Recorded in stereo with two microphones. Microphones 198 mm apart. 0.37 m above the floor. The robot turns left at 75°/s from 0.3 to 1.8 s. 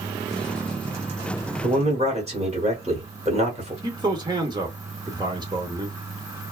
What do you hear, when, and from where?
1.6 s a man speaking: 35° right (ahead or behind), 1.4 m; by 3.7 s 30° right (ahead or behind), 1.4 m
3.8 s a man speaking: 20° right (ahead or behind), 0.8 m